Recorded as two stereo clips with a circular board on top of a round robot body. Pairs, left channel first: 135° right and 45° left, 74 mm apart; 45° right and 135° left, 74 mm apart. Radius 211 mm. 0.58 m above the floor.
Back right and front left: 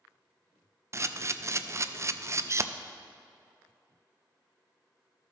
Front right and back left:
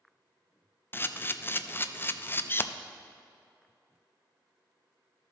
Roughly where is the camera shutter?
Ahead.